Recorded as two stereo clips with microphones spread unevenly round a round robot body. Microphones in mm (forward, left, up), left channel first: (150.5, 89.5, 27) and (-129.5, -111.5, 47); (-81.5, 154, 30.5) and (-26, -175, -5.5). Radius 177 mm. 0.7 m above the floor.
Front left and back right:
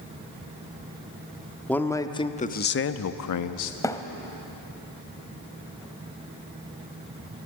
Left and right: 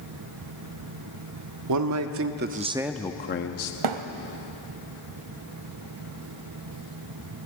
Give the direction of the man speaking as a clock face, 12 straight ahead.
2 o'clock.